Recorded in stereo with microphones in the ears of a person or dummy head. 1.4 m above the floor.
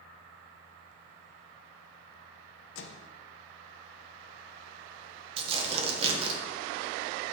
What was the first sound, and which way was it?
A microwave, 75° left (ahead or behind).